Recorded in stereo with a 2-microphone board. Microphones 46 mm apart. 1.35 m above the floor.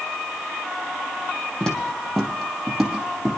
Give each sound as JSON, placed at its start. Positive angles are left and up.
{"t": 1.6, "sound": "footsteps", "side_deg": 10, "distance_m": 3.0}